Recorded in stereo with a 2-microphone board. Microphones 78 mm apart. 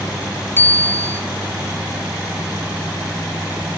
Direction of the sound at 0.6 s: 25° left (ahead or behind).